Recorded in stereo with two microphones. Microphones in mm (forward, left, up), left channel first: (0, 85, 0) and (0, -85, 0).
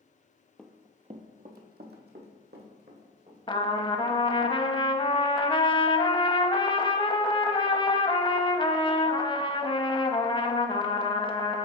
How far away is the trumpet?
About 0.5 m.